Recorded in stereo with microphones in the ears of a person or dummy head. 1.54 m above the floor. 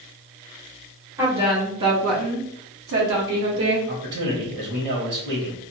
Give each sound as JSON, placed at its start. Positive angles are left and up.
{"t": 1.2, "sound": "a woman speaking", "side_deg": -15, "distance_m": 1.5}
{"t": 3.9, "sound": "a man speaking", "side_deg": -60, "distance_m": 1.0}